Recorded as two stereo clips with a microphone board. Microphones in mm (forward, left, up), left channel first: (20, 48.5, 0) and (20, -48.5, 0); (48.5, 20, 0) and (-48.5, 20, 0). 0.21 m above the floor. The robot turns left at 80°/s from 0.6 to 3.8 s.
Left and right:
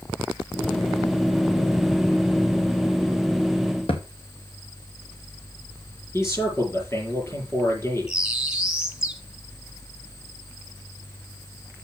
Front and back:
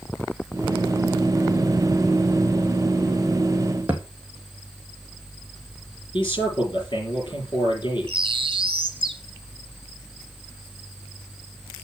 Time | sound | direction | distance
3.9 | a thud | 105° left | 1.6 m
6.1 | a man speaking | 30° left | 6 m
8.1 | a bird | 175° right | 0.9 m